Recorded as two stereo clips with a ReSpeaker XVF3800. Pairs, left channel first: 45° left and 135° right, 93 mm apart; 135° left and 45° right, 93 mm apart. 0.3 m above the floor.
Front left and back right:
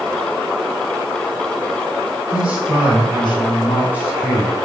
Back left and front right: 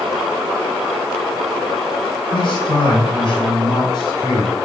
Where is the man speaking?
140° left, 3 m; by 4.5 s 100° left, 2.5 m.